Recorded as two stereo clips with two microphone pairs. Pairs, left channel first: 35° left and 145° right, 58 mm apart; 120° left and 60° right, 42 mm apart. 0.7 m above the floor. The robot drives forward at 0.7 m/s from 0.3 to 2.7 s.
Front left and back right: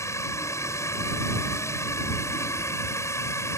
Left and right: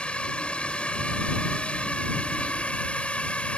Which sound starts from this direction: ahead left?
A drone, at 0.0 s.